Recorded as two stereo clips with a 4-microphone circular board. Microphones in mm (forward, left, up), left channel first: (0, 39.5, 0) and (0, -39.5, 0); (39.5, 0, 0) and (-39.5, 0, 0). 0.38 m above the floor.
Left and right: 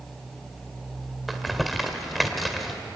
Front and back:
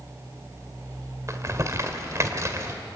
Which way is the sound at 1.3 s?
Straight behind.